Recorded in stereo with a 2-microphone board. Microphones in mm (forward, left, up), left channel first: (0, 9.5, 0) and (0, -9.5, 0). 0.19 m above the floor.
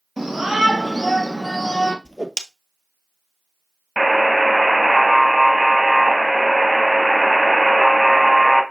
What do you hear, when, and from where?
0.2 s a shout: 10° right (ahead or behind), 4.5 m; by 1.9 s 10° left (ahead or behind), 4 m
2.0 s a whoosh: 40° left (ahead or behind), 0.8 m
4.0 s a buzzer: centre (ahead or behind), 1.1 m